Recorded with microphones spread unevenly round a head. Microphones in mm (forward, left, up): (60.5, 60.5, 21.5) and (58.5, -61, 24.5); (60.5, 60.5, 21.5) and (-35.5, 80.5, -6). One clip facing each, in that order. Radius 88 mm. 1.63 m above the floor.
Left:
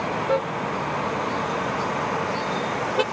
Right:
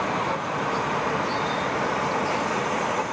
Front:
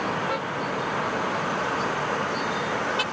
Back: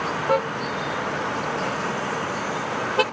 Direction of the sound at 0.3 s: 130° left.